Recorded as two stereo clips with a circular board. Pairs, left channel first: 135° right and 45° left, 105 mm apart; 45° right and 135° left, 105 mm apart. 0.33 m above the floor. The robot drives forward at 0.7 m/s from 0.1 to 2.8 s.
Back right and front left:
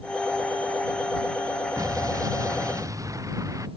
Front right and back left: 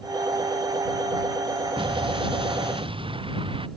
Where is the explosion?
100° left.